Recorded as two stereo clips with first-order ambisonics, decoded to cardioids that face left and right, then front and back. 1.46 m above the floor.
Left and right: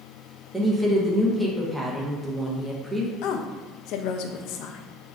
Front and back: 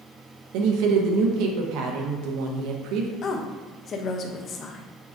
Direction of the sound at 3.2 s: 60° left.